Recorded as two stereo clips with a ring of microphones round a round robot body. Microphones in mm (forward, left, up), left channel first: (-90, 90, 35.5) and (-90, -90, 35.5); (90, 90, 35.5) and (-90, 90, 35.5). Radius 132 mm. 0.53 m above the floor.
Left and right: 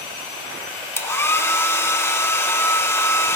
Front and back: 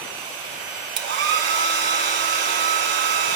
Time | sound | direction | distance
1.0 | a hair dryer | 165° left | 1.0 m